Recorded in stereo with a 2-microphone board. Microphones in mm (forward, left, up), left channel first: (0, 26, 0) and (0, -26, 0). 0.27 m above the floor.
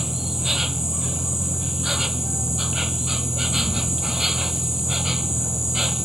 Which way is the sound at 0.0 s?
5° right (ahead or behind).